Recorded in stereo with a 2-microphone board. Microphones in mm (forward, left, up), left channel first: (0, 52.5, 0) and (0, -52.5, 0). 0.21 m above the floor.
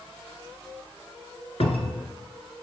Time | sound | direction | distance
1.6 | a cupboard door | 70° left (ahead or behind) | 1.2 m